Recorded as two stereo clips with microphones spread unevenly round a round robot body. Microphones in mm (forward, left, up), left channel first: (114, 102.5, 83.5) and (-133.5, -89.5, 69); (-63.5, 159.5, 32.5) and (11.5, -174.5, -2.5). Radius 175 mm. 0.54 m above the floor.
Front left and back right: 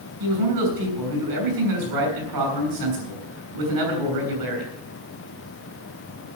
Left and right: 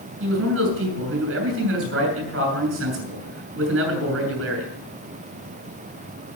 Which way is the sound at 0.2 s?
130° right.